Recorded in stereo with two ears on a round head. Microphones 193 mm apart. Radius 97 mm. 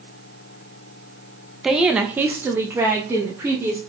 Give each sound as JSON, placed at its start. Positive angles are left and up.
{"t": 1.6, "sound": "a woman speaking", "side_deg": 0, "distance_m": 0.7}